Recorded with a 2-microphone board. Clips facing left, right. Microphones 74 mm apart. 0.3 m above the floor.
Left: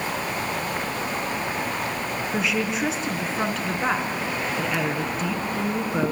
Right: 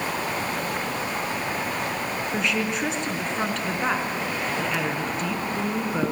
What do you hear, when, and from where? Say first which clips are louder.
2.3 s a woman speaking: left 1 dB; 5° left (ahead or behind), 4 m